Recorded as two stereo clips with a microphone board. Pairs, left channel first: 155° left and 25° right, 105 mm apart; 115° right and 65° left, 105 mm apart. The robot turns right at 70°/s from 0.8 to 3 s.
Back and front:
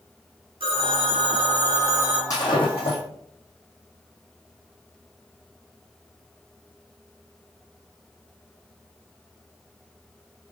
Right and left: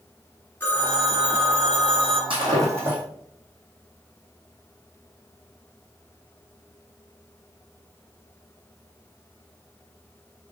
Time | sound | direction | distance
0.6 | a phone ringing | 40° right | 1.6 m
2.3 | breaking glass | 100° left | 2.5 m